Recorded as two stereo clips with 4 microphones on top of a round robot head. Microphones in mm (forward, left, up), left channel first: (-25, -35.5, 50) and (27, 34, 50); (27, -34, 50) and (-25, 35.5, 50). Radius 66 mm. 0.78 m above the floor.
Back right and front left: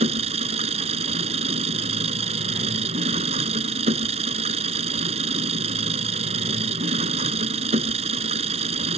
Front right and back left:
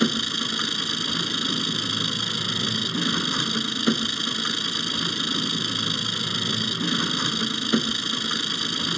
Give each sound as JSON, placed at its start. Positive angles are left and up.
{"t": 0.0, "sound": "an engine running", "azimuth_deg": 35}